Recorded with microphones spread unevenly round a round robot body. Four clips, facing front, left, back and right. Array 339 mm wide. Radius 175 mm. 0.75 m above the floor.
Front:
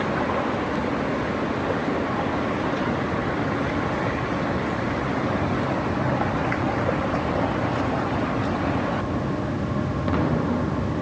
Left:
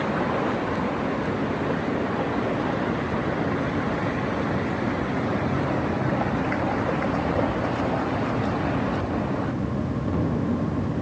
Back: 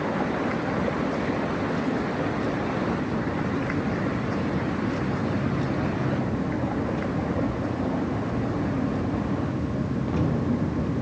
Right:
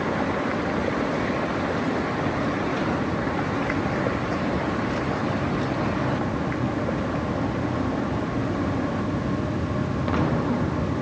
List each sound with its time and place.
Only background noise.